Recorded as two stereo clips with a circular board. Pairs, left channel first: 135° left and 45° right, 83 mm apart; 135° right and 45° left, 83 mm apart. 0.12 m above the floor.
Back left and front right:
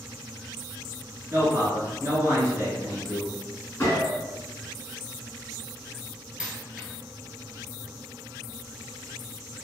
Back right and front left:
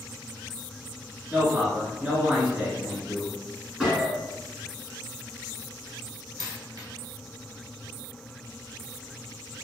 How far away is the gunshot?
About 1.5 m.